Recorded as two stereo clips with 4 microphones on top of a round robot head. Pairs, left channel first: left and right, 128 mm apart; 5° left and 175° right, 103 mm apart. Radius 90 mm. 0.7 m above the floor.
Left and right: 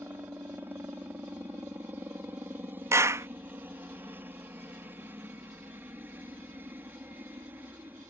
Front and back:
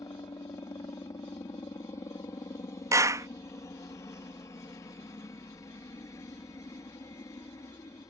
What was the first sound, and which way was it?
A helicopter, 30° right.